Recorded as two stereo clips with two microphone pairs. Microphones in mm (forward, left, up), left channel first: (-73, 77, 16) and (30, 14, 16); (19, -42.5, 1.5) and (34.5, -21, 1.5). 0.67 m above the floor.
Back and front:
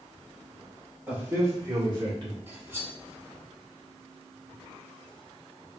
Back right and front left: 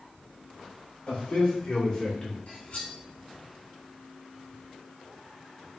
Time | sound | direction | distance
1.1 | a man speaking | 105° right | 2 m
2.5 | cutlery clinking | 100° right | 1.4 m